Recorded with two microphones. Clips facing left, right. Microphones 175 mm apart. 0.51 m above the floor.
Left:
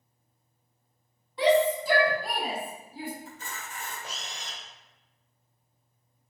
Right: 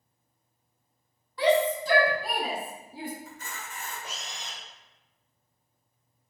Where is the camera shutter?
30° left (ahead or behind), 1.7 m.